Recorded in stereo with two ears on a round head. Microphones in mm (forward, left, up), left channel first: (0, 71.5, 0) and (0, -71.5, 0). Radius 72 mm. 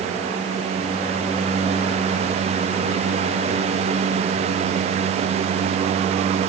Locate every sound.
Only background noise.